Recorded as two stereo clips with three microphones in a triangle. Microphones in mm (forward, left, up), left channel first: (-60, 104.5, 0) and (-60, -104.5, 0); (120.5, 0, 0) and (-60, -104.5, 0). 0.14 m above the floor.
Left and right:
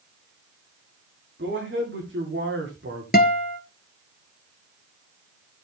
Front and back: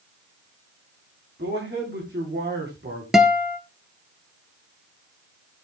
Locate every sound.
1.4 s a man speaking: 120° right, 8 m; by 3.0 s 115° right, 9 m
3.1 s a guitar: 125° left, 1.7 m